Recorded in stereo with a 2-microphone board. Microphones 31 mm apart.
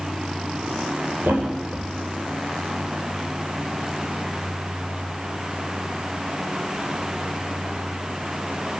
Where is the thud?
65° right (ahead or behind), 9 m.